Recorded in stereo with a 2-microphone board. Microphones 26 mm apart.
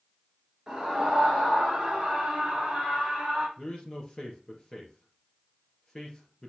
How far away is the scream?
About 2.5 m.